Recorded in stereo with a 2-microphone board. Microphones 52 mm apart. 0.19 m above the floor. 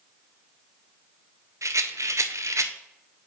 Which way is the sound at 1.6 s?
75° right (ahead or behind).